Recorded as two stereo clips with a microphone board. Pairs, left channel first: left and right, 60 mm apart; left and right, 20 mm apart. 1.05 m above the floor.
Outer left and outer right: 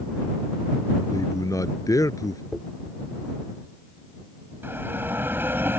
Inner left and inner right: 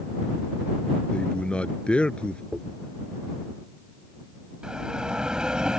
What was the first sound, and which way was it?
A man speaking, 75° left (ahead or behind).